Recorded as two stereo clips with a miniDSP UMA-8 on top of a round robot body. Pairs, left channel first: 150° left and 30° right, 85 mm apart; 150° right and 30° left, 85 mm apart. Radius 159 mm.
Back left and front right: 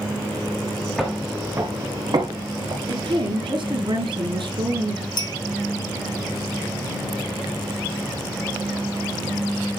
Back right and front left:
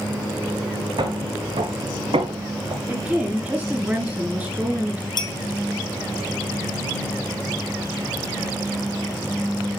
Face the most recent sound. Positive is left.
turn(degrees=-175)